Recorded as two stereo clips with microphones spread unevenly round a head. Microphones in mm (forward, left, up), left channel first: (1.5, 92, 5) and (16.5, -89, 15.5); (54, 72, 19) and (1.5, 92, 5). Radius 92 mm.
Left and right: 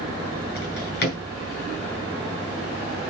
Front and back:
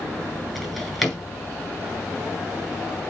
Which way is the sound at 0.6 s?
60° left.